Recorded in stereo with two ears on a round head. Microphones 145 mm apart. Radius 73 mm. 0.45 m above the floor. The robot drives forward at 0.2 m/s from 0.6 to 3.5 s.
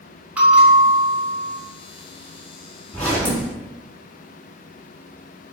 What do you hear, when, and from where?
0.4 s a bell: 10° right (ahead or behind), 1.0 m; by 1.6 s 5° right (ahead or behind), 1.1 m
2.9 s a zipper: 10° left (ahead or behind), 1.2 m